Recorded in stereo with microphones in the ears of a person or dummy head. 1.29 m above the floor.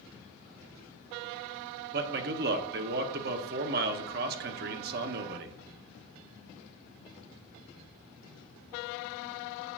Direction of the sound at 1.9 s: 50° right (ahead or behind).